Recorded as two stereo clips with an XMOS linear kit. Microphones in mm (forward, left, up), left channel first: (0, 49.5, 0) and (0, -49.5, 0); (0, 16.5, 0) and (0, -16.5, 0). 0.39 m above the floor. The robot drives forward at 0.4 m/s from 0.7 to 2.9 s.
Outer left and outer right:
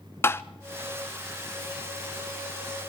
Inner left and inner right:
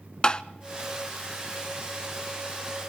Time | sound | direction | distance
0.2 | tapping | 25° left (ahead or behind) | 0.6 m